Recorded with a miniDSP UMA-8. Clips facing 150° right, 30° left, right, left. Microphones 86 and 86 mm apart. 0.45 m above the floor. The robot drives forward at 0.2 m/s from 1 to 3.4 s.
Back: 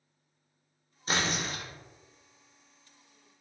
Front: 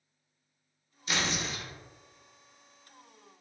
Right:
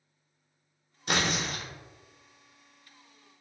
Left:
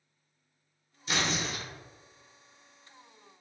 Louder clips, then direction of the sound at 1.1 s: Back 2 dB, right 2 dB; 100° right.